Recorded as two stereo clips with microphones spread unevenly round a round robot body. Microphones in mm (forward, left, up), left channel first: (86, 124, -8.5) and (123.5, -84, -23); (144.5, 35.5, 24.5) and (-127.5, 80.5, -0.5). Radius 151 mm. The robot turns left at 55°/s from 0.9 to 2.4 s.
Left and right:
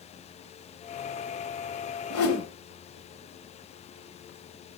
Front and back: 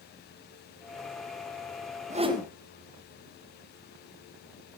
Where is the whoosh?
110° left, 2.5 m; by 2.5 s 90° left, 2.5 m.